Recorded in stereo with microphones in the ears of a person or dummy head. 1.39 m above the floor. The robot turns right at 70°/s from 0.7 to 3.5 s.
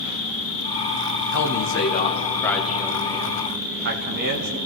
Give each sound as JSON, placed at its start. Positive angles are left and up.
{"t": 0.0, "sound": "an insect", "azimuth_deg": 50, "distance_m": 4.5}
{"t": 1.3, "sound": "a man speaking", "azimuth_deg": 90, "distance_m": 1.1}